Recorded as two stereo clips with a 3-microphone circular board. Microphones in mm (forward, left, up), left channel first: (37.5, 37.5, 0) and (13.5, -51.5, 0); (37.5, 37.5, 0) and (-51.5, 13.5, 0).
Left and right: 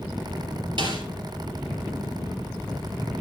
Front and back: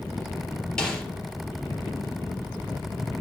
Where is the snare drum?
65° right, 2.5 m.